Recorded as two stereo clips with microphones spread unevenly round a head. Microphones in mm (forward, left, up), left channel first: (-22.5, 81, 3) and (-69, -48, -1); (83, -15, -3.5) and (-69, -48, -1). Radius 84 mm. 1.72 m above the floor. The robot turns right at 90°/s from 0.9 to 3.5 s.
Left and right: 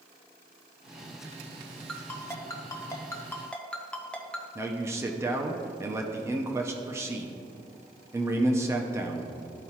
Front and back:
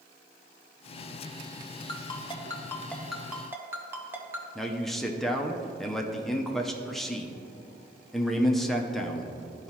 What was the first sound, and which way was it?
A ringtone, 5° right.